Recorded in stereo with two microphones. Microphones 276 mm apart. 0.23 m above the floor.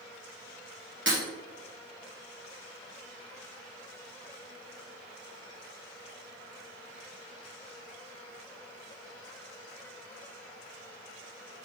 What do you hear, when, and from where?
1.1 s breaking glass: 45° right (ahead or behind), 2 m